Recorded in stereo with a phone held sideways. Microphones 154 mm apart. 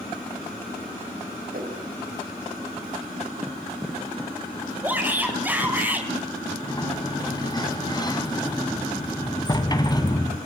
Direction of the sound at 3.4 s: 10° right (ahead or behind).